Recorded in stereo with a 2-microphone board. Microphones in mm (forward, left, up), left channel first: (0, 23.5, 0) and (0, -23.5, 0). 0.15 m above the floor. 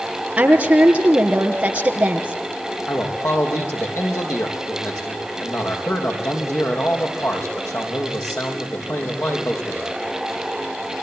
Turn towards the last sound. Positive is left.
turn(degrees=65)  # may be behind; listen again after turning